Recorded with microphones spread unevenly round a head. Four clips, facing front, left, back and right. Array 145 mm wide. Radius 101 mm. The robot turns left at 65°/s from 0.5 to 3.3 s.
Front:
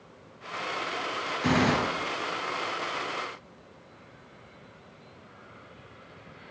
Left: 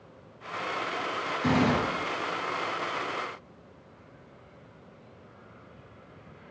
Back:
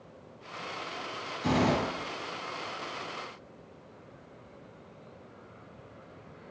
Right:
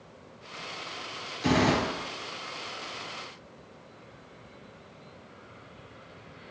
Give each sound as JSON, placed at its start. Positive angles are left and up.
{"t": 1.4, "sound": "a gunshot", "azimuth_deg": 20, "distance_m": 1.3}